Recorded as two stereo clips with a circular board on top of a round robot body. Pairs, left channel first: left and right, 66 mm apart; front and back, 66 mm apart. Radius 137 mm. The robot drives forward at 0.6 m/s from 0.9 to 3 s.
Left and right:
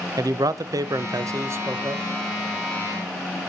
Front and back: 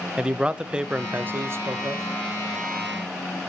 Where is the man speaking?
105° right, 0.7 m; by 2.1 s 145° right, 1.1 m.